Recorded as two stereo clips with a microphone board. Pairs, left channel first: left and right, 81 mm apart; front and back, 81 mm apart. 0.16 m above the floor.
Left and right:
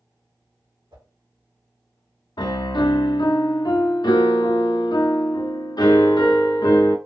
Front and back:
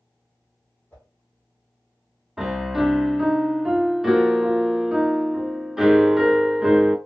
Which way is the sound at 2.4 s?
95° left.